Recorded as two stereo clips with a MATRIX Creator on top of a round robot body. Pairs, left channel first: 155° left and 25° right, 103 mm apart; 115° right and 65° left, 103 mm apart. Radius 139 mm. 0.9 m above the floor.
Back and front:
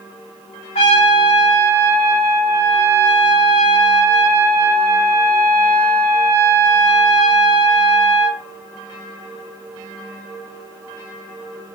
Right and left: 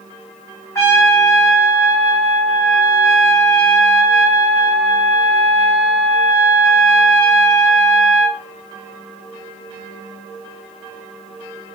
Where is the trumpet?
175° right, 1.4 m.